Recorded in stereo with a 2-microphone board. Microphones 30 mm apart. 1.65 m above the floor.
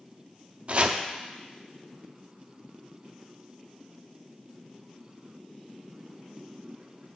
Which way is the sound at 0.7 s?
45° right (ahead or behind).